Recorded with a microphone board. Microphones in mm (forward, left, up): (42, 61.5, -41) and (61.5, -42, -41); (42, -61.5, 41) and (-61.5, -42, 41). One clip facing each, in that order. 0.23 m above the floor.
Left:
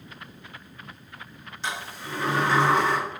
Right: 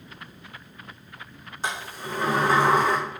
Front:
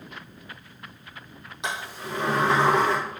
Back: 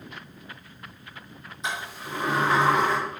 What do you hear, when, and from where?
1.6 s a sliding door: 30° right, 5 m